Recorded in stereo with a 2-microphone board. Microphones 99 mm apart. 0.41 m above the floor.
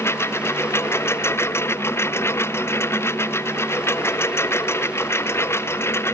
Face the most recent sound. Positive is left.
turn(degrees=25)  # may be behind; listen again after turning